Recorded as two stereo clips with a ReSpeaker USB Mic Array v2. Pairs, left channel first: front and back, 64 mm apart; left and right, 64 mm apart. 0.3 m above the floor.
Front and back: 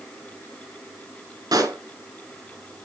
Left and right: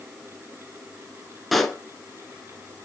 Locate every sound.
1.5 s a pop: straight behind, 1.6 m